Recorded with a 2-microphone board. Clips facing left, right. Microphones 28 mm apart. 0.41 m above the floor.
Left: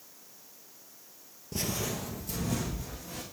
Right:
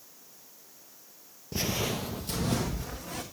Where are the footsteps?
20° right (ahead or behind), 0.6 m; by 3.2 s 65° right (ahead or behind), 1.8 m.